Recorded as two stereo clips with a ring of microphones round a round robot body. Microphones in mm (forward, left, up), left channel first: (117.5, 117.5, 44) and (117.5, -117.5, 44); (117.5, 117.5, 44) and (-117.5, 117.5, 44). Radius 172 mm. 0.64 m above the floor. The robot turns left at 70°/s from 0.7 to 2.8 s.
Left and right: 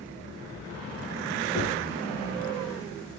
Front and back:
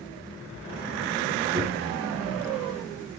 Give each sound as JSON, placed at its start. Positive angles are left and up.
{"t": 1.5, "sound": "knocking", "azimuth_deg": 160, "distance_m": 5.5}